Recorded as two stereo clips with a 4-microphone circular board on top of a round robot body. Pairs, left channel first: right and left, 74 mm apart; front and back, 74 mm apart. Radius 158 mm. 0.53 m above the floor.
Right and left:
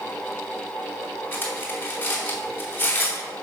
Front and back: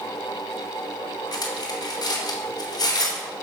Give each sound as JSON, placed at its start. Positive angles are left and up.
{"t": 1.3, "sound": "cutlery clinking", "azimuth_deg": -25, "distance_m": 2.5}